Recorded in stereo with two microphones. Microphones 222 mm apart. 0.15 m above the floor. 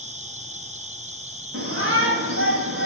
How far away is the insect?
About 1.5 m.